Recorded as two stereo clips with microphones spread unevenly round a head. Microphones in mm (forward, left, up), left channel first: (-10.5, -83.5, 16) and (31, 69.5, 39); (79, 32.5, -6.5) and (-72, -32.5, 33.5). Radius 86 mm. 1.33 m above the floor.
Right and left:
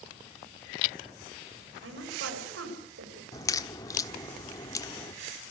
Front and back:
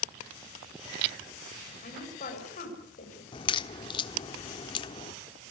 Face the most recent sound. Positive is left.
turn(degrees=-40)